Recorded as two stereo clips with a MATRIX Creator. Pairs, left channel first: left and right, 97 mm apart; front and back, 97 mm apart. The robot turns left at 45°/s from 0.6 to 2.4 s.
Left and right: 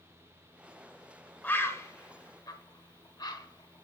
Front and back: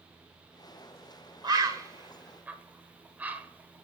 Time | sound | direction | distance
1.4 | a bird | 155° left | 0.7 m